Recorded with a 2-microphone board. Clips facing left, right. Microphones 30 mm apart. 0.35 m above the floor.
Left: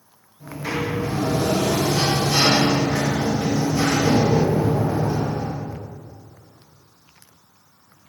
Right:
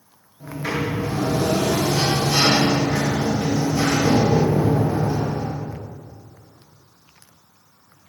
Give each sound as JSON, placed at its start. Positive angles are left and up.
{"t": 0.4, "sound": "a sliding door", "side_deg": -20, "distance_m": 1.2}